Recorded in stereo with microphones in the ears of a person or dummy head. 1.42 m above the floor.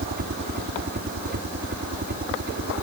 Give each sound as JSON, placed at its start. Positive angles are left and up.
{"t": 0.0, "sound": "a helicopter", "side_deg": -50}